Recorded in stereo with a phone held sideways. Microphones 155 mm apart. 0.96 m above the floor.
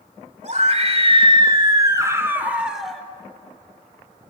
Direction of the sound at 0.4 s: 50° right (ahead or behind).